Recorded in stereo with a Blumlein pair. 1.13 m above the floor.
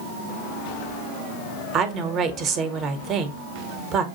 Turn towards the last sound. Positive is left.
turn(degrees=-30)